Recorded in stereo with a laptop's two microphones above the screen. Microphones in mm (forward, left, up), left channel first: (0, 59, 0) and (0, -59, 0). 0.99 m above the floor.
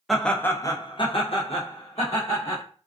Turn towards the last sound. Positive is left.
turn(degrees=65)  # may be behind; listen again after turning